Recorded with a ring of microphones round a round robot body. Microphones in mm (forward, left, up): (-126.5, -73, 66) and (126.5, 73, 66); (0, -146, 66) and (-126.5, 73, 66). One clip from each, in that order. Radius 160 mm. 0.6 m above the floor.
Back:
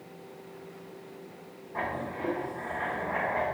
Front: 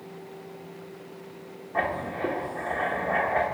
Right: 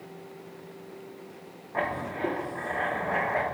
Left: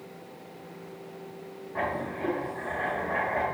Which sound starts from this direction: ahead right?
Writing, at 1.7 s.